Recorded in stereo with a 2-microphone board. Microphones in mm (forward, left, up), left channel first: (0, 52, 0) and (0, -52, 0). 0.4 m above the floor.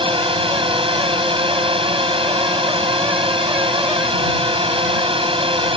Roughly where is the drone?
Right.